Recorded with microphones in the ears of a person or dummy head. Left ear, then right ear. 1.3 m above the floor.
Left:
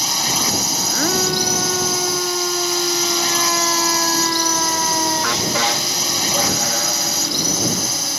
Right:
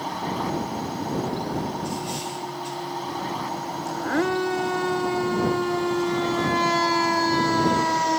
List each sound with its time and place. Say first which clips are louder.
0.0 s a drone: left 9 dB; 80° left